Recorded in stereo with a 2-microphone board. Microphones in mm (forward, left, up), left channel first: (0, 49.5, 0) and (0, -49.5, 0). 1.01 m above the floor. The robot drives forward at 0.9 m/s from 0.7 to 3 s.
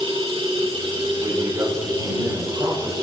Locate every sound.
0.0 s running water: 75° right (ahead or behind), 5.5 m; by 3.0 s 55° right (ahead or behind), 6.5 m
1.2 s a man speaking: 40° right (ahead or behind), 7.5 m; by 3.0 s 45° right (ahead or behind), 6.5 m